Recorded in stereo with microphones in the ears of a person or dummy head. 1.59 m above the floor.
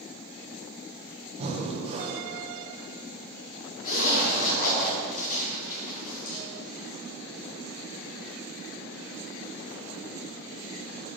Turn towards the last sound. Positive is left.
turn(degrees=50)  # may be behind; listen again after turning